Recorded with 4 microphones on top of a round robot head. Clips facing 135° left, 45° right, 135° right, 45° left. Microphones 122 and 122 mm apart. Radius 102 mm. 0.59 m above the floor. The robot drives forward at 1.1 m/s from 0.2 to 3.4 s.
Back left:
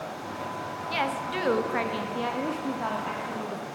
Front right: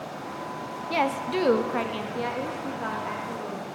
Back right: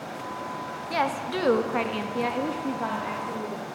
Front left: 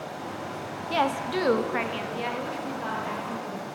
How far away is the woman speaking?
About 1.5 m.